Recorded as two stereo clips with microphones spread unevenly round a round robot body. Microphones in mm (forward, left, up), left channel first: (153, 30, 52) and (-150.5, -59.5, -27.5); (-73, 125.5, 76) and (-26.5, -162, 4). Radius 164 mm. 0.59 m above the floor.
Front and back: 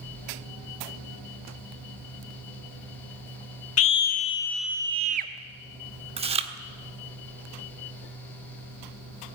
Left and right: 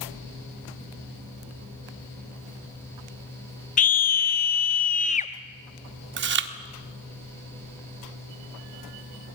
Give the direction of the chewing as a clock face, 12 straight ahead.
4 o'clock.